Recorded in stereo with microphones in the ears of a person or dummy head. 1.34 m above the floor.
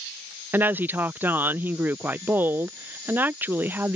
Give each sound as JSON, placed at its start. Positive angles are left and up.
{"t": 0.5, "sound": "a woman speaking", "side_deg": -15}